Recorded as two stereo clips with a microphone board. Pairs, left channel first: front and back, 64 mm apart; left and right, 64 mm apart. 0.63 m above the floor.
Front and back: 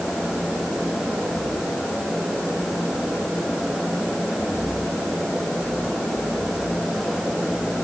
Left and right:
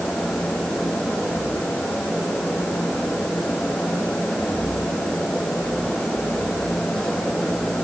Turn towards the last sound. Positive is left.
No sound to turn to.